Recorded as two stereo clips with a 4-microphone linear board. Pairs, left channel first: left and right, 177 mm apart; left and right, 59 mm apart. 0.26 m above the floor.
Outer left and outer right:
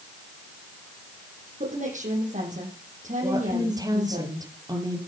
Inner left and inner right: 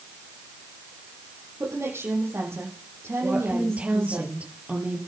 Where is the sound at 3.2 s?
20° right (ahead or behind), 6 m.